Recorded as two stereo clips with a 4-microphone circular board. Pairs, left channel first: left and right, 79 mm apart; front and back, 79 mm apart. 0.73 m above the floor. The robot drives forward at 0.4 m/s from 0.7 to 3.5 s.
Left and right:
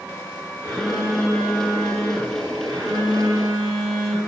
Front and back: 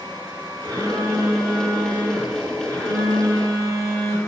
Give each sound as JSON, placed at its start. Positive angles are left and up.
{"t": 0.6, "sound": "a phone buzzing", "azimuth_deg": 140, "distance_m": 1.2}